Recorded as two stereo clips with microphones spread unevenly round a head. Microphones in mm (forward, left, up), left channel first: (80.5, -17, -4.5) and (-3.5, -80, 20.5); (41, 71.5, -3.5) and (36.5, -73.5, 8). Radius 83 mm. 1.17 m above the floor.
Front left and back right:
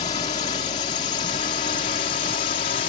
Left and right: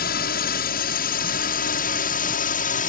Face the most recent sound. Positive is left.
turn(degrees=65)